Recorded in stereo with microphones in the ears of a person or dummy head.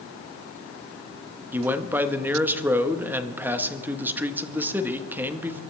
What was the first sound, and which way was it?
A man speaking, 5° right (ahead or behind).